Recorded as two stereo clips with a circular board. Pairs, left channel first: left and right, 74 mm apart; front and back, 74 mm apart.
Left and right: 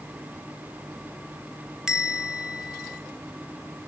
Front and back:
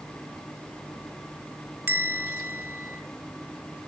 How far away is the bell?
About 0.8 m.